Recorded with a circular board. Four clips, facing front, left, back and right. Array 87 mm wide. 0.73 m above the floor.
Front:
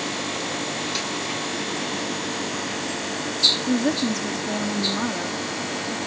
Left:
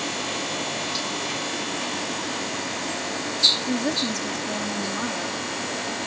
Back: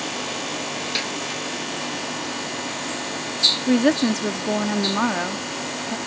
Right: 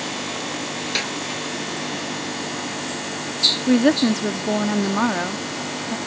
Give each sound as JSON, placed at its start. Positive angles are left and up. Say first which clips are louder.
{"t": 0.9, "sound": "a snare drum", "louder": "right 3 dB, even", "azimuth_deg": -110}
{"t": 3.7, "sound": "a woman speaking", "louder": "right 11 dB, back 5 dB", "azimuth_deg": -130}